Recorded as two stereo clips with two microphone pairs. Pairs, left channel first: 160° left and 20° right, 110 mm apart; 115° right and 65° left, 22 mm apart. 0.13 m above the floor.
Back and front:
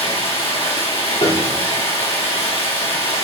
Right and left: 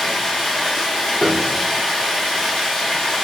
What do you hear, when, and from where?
0.0 s running water: straight behind, 2.5 m
1.2 s a piano: 175° left, 2 m